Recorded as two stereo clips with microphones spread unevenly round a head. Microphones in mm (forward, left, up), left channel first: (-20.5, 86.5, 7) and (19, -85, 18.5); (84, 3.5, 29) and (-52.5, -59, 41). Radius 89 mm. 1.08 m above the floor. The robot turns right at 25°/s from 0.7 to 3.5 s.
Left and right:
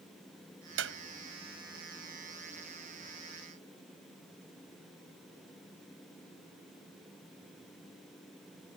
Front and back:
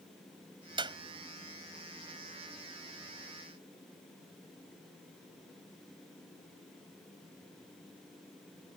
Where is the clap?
100° right; by 1.0 s 95° right.